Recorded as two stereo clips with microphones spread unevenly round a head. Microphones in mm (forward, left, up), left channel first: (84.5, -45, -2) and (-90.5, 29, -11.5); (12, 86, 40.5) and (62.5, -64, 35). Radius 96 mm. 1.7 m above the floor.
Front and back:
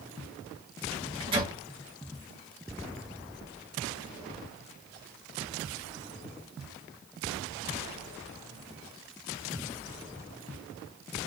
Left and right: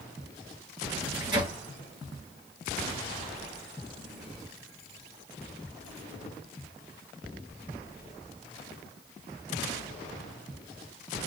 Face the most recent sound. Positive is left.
turn(degrees=-140)